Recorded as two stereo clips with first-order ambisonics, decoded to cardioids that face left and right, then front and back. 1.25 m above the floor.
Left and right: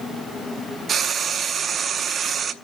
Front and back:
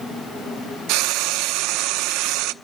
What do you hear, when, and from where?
0.9 s frying: 150° right, 0.7 m